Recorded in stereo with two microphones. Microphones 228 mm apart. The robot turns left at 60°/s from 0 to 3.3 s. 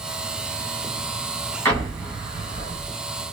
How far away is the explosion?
About 1.8 m.